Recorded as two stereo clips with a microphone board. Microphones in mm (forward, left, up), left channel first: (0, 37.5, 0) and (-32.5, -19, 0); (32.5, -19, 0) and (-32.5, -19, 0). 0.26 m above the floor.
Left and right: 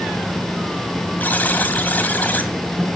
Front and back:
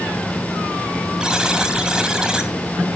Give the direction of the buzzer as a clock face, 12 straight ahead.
8 o'clock.